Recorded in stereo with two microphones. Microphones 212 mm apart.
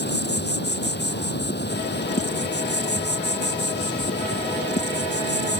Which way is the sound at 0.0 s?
55° left (ahead or behind).